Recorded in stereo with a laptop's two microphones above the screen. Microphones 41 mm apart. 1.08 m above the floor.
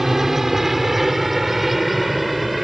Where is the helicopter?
5° right (ahead or behind); by 2.6 s centre (ahead or behind).